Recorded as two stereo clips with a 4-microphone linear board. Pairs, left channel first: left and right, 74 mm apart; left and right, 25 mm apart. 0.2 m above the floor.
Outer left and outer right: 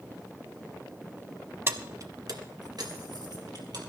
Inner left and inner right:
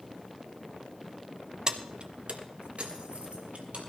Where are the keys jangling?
30° right (ahead or behind), 0.7 m; by 3.8 s 65° right (ahead or behind), 3 m.